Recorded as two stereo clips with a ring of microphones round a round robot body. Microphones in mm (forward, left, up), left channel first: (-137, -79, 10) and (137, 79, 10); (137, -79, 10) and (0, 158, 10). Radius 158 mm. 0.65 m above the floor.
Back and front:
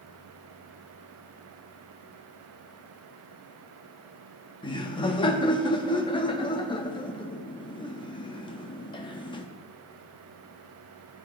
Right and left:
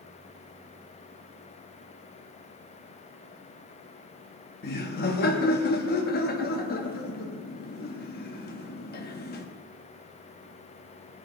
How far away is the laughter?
About 0.8 m.